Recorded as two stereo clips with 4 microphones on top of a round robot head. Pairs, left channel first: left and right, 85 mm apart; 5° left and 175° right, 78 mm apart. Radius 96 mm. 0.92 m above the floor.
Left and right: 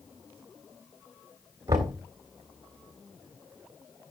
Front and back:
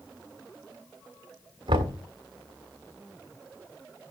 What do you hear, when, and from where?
1.7 s knocking: 150° right, 1.7 m